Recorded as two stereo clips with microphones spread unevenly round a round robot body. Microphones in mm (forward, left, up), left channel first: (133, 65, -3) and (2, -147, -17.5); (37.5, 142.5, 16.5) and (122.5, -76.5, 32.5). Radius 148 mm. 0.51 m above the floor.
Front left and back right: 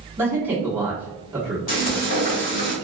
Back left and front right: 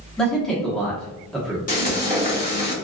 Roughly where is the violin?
No violin in this recording.